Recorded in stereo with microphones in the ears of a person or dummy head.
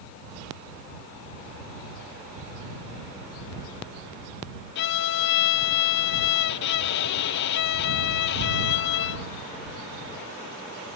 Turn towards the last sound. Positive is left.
turn(degrees=60)  # may be behind; listen again after turning